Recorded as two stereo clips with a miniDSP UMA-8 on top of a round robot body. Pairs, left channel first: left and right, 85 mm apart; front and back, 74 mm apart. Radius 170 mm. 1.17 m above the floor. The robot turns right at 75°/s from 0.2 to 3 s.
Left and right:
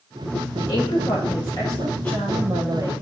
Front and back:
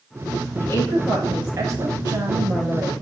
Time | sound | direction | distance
0.6 | a woman speaking | 45° left | 6.5 m